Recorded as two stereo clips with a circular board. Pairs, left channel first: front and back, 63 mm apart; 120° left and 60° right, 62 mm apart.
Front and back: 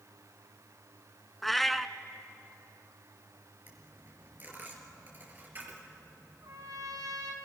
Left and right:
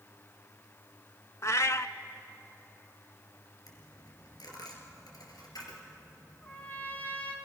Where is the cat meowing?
90° left, 0.6 m.